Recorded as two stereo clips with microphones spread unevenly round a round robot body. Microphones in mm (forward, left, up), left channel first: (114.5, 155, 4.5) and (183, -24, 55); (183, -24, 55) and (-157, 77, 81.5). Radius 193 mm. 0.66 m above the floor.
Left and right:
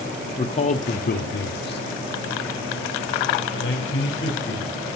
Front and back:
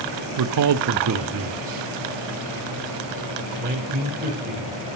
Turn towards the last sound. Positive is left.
turn(degrees=95)